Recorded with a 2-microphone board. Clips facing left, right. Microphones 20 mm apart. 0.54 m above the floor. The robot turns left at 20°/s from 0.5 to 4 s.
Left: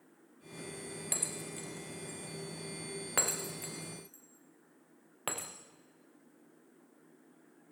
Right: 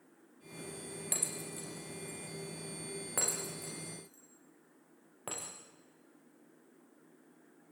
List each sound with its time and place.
1.1 s breaking glass: 5° left (ahead or behind), 4 m; by 5.5 s 65° left (ahead or behind), 4 m